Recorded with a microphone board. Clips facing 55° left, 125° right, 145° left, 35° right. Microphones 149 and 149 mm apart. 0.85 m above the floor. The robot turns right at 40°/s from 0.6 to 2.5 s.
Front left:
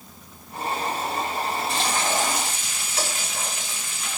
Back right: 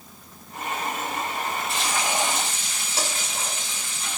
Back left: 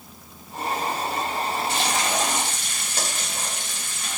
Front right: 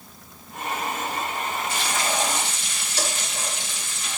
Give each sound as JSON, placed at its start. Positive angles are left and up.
{"t": 1.7, "sound": "frying", "azimuth_deg": 145, "distance_m": 6.0}